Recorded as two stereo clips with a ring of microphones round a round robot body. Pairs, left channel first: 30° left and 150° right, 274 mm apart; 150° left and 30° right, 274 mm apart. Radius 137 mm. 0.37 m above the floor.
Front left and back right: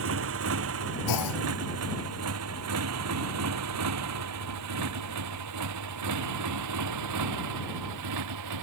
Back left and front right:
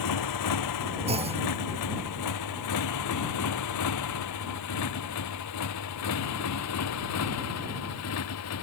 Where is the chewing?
No chewing in this recording.